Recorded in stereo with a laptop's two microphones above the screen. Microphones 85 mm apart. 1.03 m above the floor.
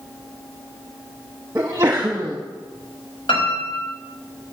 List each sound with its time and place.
1.6 s a sneeze: 35° right (ahead or behind), 1.0 m
3.3 s a piano: 90° left, 5.5 m